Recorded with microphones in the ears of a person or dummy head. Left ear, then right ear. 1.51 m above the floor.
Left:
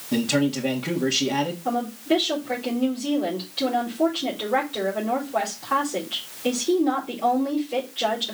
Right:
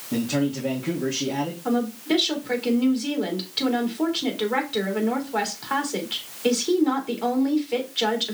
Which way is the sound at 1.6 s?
35° right (ahead or behind).